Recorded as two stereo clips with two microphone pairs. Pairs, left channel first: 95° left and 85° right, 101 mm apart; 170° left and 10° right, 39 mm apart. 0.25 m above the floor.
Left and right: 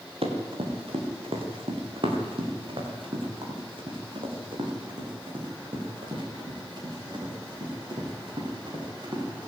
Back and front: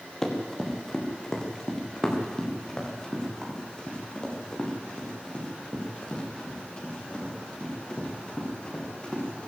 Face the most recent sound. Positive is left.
turn(degrees=-130)